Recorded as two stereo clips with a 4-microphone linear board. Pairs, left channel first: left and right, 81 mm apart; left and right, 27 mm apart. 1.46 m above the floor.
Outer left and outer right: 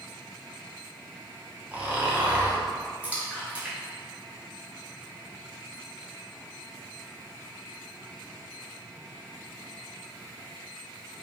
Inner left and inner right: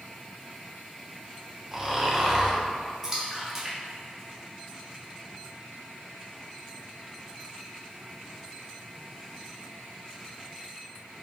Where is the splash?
15° right (ahead or behind), 1.1 m.